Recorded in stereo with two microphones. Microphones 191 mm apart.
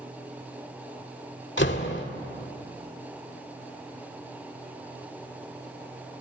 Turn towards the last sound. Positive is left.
turn(degrees=75)  # may be behind; listen again after turning